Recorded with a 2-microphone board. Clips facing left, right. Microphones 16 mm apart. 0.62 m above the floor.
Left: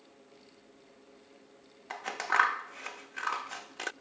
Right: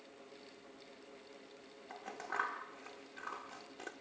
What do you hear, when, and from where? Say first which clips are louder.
1.9 s scissors: left 12 dB; 70° left (ahead or behind), 0.6 m